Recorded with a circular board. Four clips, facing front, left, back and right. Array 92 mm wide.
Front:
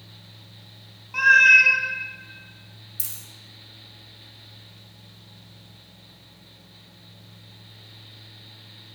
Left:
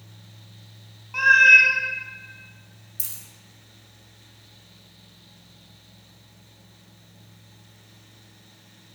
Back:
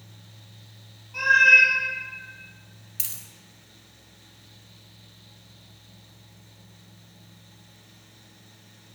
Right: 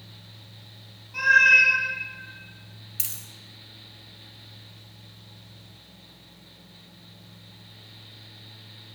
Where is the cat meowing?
45° left, 0.6 m.